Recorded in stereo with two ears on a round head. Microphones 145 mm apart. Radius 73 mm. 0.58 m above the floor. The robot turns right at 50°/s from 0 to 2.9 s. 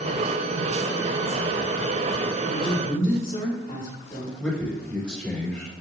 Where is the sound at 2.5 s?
20° left (ahead or behind), 1.8 m; by 4.3 s 40° left (ahead or behind), 1.8 m.